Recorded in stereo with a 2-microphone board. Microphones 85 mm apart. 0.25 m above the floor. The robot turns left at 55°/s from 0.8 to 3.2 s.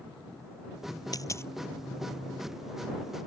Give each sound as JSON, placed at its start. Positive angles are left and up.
{"t": 1.1, "sound": "a dropped coin", "side_deg": 45}